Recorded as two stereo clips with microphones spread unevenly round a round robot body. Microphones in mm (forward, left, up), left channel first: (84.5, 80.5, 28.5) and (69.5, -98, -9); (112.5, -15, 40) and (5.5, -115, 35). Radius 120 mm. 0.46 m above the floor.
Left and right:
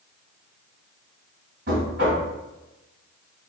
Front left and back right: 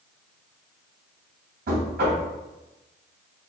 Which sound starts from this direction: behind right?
Knocking, at 1.7 s.